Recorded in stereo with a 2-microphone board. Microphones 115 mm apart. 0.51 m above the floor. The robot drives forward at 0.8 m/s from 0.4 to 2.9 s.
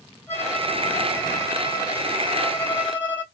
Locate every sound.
0.3 s a violin: 20° left (ahead or behind), 3 m; by 3.2 s 50° left (ahead or behind), 1.4 m